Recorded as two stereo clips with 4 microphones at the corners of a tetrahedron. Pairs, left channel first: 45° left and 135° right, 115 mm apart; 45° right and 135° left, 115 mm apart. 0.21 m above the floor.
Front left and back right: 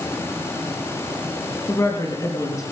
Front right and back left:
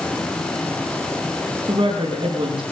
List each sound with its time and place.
1.7 s a woman speaking: 100° left, 6 m